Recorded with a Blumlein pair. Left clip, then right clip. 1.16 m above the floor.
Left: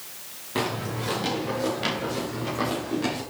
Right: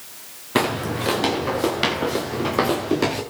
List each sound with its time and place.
0.6 s footsteps: 60° right, 4.5 m; by 3.2 s 55° right, 6 m